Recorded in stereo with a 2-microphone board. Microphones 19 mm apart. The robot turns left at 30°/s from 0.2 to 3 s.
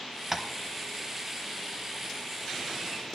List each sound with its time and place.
0.3 s tapping: 20° right (ahead or behind), 0.7 m